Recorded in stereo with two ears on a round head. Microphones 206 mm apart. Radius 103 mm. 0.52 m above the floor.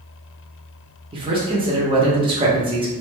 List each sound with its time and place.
1.1 s a man speaking: 25° right (ahead or behind), 0.7 m